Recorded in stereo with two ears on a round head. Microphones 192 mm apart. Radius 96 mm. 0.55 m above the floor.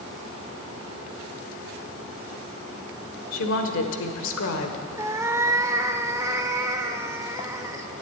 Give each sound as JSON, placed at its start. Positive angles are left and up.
{"t": 3.3, "sound": "a woman speaking", "side_deg": 70, "distance_m": 1.5}
{"t": 5.0, "sound": "a cat meowing", "side_deg": -15, "distance_m": 0.7}